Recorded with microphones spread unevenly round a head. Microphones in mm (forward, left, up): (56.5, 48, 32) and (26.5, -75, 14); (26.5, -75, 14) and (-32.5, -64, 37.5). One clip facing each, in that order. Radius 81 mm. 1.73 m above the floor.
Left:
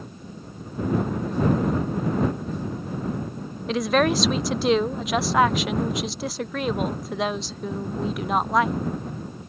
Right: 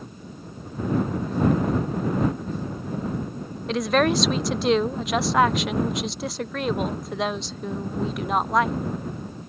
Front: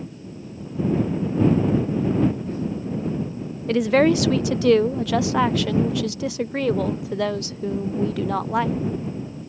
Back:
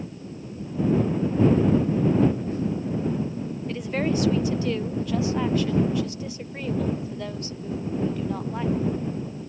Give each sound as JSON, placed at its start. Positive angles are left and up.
{"t": 3.7, "sound": "a woman speaking", "azimuth_deg": -15}